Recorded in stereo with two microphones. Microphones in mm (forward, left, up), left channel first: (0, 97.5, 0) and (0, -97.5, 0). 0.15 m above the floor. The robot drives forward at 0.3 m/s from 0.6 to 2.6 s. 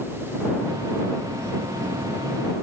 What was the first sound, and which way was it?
Only background noise.